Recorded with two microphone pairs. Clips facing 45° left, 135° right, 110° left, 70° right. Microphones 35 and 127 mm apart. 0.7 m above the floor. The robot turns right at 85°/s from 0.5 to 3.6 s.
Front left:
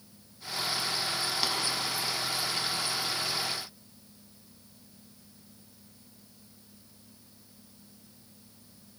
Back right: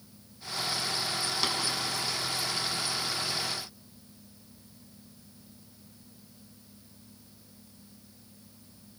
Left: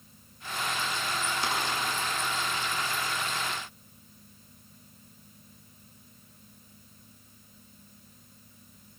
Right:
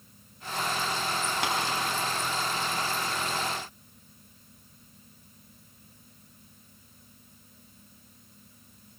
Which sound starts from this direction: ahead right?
Tapping, at 1.4 s.